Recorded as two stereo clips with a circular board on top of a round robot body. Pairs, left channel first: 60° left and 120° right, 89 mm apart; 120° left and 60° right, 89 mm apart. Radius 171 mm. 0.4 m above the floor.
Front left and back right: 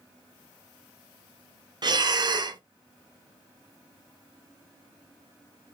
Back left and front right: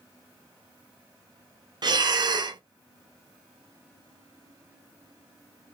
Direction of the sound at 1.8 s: 90° right.